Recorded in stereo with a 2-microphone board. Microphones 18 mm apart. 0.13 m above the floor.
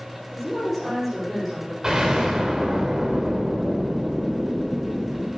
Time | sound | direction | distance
0.3 | a woman speaking | 10° left (ahead or behind) | 5 m
1.8 | an explosion | 20° right (ahead or behind) | 2.5 m